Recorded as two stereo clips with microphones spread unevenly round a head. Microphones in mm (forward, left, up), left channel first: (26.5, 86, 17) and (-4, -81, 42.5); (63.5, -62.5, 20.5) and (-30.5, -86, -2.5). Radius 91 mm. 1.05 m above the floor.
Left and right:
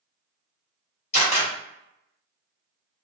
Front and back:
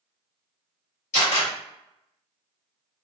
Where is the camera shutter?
30° left, 1.5 m.